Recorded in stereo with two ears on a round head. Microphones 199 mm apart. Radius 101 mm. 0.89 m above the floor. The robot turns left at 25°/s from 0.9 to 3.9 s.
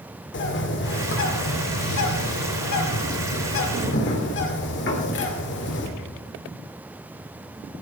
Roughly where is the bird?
Behind left.